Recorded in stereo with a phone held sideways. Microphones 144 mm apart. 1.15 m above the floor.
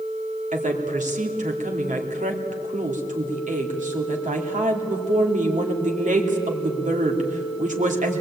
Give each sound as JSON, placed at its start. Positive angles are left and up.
{"t": 0.5, "sound": "a woman speaking", "side_deg": -55, "distance_m": 2.5}